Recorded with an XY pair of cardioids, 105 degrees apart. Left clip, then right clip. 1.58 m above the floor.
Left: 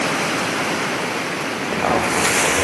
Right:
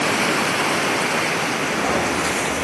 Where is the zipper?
45° left, 1.3 m.